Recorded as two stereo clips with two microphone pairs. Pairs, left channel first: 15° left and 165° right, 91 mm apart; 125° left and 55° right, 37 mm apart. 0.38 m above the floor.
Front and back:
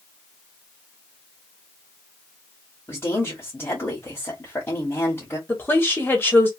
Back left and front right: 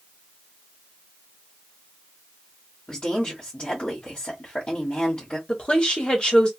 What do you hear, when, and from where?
2.9 s a woman speaking: 75° left, 1.8 m
5.5 s a woman speaking: 70° left, 1.5 m